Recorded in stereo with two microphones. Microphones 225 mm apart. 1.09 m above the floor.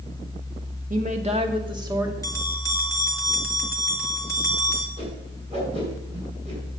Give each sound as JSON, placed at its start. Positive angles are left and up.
{"t": 0.9, "sound": "a woman speaking", "side_deg": -35, "distance_m": 1.5}
{"t": 2.2, "sound": "a bell", "side_deg": 15, "distance_m": 1.3}
{"t": 5.0, "sound": "a whoosh", "side_deg": -30, "distance_m": 6.0}